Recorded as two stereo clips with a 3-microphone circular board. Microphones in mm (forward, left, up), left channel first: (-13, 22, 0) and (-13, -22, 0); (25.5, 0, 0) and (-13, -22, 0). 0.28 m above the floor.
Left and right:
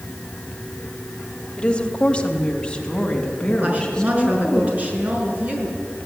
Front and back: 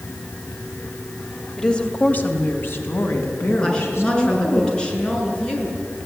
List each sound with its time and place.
1.6 s a woman speaking: 75° left, 1.5 m; by 4.6 s 15° left, 4.5 m
3.6 s a woman speaking: 40° right, 4.5 m